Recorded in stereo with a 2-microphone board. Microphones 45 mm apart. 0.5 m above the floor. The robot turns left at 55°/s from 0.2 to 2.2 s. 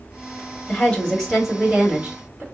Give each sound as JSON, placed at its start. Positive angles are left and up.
{"t": 0.7, "sound": "a woman speaking", "azimuth_deg": 40, "distance_m": 1.7}